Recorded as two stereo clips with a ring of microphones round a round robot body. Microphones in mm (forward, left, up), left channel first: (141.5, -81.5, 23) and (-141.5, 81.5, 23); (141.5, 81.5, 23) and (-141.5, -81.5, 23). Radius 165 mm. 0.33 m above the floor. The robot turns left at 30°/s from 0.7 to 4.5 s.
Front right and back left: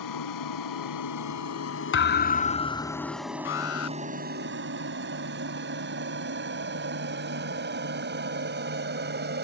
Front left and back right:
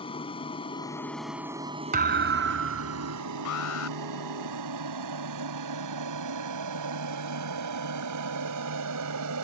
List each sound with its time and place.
0.0 s an aircraft: 45° right; by 9.4 s 160° right
1.9 s a thud: 85° right; by 3.2 s 125° right
3.5 s an alarm: 15° left; by 4.0 s straight ahead